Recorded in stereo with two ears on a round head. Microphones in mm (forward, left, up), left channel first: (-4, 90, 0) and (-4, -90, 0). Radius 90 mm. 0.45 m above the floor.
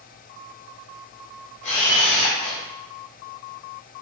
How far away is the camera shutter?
About 1.2 m.